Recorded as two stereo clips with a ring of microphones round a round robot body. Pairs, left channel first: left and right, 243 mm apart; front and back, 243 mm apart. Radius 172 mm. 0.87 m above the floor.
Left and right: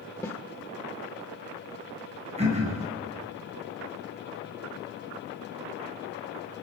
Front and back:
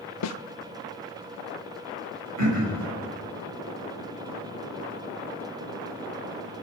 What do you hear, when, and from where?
0.2 s a snare drum: 10° left, 0.9 m
2.4 s throat clearing: 155° right, 9 m